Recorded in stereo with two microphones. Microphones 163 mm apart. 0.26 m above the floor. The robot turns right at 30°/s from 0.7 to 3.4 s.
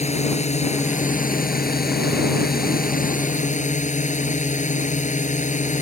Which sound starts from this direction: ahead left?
A drone, at 0.0 s.